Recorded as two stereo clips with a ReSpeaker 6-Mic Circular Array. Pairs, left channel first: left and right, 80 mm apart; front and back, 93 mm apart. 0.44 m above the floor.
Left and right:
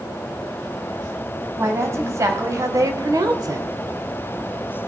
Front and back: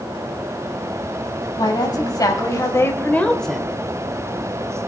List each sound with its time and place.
1.6 s a woman speaking: 35° right, 2.5 m; by 3.7 s 100° right, 1.0 m